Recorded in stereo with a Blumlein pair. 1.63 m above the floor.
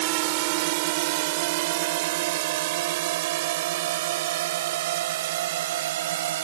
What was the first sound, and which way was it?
A drone, 45° right.